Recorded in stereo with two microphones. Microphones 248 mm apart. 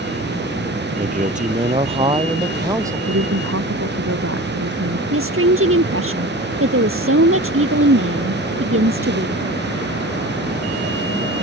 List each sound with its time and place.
1.0 s a man speaking: 35° right (ahead or behind); by 3.0 s 10° right (ahead or behind)
3.1 s a woman speaking: 60° right (ahead or behind)
5.1 s a woman speaking: 55° right (ahead or behind)